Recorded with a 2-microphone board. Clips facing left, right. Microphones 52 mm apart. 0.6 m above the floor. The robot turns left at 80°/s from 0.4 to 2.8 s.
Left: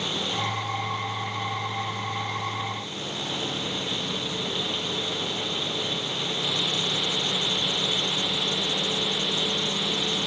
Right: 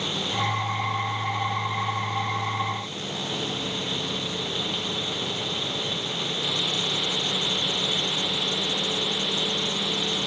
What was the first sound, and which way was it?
Only background noise.